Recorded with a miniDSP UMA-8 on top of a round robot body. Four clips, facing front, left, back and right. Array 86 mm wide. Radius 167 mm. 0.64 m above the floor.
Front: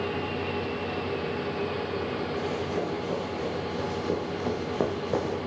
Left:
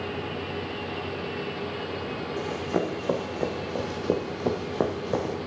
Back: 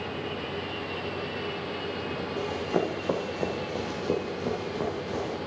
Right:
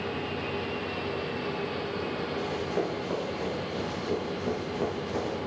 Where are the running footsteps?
135° left, 1.9 m; by 5.4 s 50° left, 1.2 m.